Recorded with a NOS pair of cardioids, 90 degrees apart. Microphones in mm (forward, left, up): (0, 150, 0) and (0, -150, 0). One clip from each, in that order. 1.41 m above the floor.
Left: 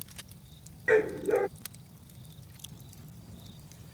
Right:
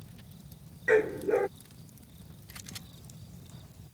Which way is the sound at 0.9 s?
Straight ahead.